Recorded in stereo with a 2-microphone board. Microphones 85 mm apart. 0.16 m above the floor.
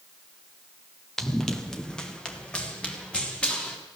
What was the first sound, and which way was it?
Running footsteps, 5° left (ahead or behind).